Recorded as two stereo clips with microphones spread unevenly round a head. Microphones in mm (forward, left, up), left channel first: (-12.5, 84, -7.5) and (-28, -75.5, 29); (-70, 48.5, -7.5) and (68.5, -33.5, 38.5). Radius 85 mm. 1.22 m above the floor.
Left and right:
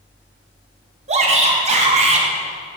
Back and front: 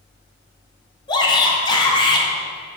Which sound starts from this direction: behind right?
A shout, at 1.1 s.